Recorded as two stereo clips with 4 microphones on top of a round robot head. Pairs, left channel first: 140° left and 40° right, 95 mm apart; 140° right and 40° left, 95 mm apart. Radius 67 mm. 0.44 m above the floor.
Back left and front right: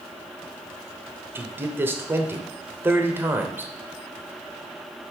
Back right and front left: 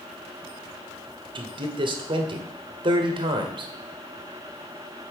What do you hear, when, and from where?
1.4 s a man speaking: 20° left, 1.4 m